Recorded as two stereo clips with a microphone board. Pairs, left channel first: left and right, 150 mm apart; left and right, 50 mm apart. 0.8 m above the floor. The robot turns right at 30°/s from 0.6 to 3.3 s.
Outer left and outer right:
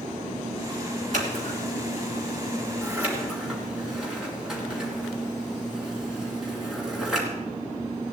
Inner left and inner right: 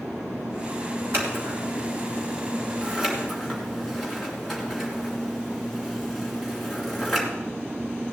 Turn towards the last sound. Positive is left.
turn(degrees=-5)  # may be behind; listen again after turning